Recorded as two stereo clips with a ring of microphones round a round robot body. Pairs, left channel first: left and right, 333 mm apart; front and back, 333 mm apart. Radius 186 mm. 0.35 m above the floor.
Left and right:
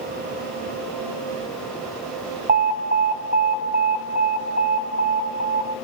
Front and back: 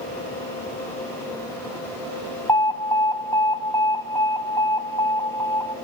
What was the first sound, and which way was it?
An alarm, 70° right.